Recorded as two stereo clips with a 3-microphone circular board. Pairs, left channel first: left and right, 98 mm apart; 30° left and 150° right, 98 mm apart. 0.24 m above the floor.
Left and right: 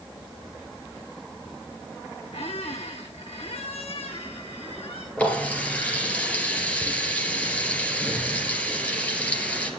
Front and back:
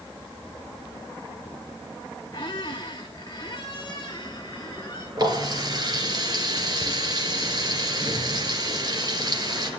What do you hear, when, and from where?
2.3 s a squeak: 75° left, 2 m
5.2 s a running tap: 165° left, 3 m